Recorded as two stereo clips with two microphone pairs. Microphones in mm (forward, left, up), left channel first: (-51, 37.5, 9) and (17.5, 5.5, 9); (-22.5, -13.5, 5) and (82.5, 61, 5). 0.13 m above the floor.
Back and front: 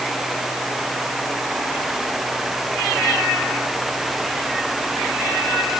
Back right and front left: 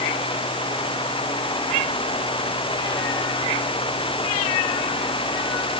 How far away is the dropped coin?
I don't hear a dropped coin.